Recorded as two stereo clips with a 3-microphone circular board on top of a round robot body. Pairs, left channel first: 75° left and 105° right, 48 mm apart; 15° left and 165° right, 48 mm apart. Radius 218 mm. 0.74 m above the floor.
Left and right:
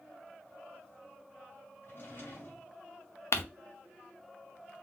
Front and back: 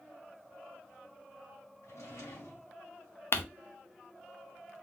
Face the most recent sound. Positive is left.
turn(degrees=50)